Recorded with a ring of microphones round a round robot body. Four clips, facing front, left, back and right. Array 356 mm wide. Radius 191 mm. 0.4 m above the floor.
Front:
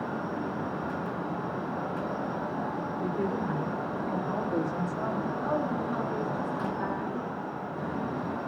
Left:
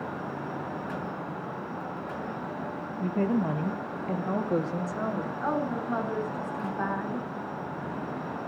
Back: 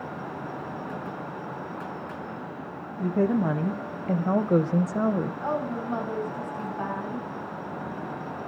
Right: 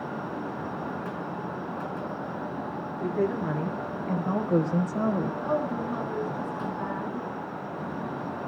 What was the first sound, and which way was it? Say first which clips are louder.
A woman speaking: even, back 8 dB; 165° left.